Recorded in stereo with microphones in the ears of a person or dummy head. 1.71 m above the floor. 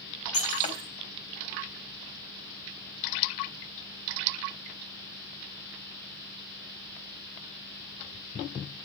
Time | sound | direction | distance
0.3 | breaking glass | 30° left (ahead or behind) | 4 m